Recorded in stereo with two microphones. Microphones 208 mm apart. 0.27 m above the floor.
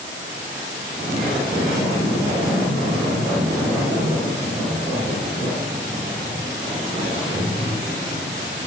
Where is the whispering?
No whispering in this recording.